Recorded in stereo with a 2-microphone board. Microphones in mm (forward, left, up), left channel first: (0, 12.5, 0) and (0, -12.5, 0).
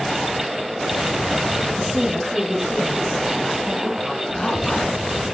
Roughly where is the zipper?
Left.